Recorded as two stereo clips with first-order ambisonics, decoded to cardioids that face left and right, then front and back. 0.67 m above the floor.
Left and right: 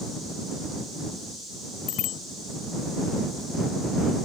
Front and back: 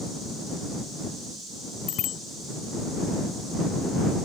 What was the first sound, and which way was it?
A bicycle bell, 50° left.